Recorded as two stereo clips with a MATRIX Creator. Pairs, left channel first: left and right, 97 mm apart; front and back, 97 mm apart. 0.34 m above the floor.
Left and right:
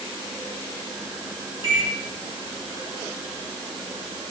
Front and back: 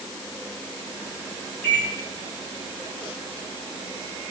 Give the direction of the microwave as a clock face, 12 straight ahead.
2 o'clock.